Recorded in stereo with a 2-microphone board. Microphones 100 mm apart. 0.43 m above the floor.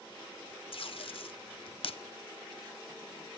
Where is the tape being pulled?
70° left (ahead or behind), 0.6 m.